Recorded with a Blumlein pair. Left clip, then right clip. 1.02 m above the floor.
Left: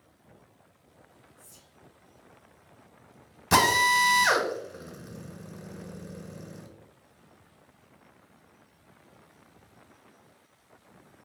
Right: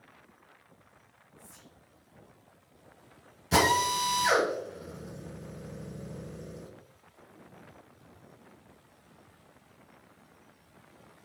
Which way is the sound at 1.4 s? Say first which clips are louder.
Right 4 dB; 65° left.